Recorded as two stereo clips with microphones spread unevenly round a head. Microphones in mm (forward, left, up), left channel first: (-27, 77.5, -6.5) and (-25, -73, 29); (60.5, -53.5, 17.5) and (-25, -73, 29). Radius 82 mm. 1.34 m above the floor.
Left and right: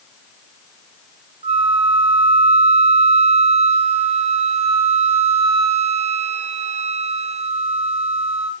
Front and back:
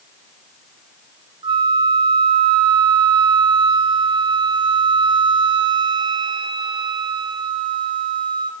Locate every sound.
1.4 s a flute: 140° right, 0.5 m